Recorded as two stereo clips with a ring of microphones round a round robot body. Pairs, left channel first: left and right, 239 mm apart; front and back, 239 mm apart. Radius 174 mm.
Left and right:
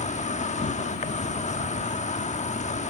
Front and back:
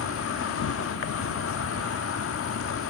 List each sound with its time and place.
0.0 s an insect: 25° left